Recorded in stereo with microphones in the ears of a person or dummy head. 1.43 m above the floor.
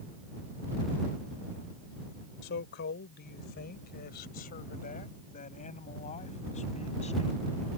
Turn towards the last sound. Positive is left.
turn(degrees=30)  # may be behind; listen again after turning